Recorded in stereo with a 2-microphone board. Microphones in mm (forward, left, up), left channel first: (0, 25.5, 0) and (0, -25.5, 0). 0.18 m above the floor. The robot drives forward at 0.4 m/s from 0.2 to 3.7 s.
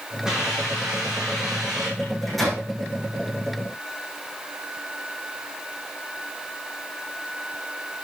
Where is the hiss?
10° right (ahead or behind), 8.5 m; by 1.9 s 15° right (ahead or behind), 8 m.